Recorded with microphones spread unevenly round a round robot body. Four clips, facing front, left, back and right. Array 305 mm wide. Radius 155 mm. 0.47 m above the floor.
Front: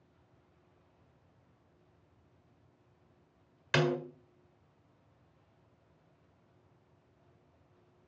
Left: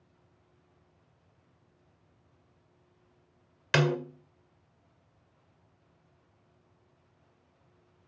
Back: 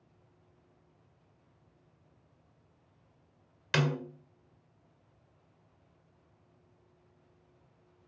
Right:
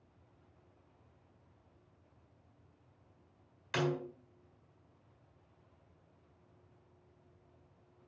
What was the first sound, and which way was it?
A snare drum, 85° left.